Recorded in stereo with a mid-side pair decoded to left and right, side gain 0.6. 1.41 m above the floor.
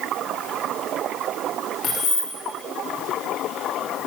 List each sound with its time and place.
1.8 s keys jangling: 60° left, 1.7 m